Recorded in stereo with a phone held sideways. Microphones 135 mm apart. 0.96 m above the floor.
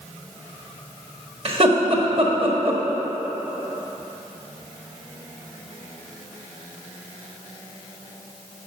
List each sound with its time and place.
1.4 s laughter: 45° right (ahead or behind), 1.3 m